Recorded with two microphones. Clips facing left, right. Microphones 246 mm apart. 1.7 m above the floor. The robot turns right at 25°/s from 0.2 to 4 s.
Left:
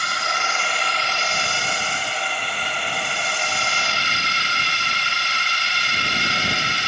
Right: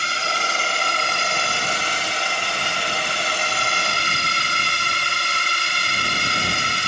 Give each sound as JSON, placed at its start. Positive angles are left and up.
{"t": 0.0, "sound": "a drone", "azimuth_deg": -150}